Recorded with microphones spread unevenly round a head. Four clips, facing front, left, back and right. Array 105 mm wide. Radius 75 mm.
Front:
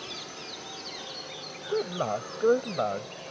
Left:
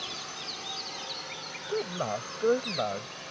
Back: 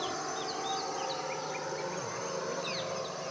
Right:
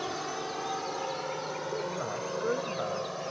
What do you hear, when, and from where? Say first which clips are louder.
0.0 s a drone: right 8 dB, back 7 dB; 100° right; by 3.3 s 85° right
1.7 s a man speaking: left 6 dB, front 8 dB; 25° left